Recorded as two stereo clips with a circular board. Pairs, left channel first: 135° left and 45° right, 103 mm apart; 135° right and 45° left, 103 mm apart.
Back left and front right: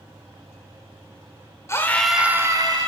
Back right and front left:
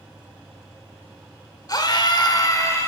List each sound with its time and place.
1.7 s a scream: 175° right, 1.2 m; by 2.9 s 75° right, 1.5 m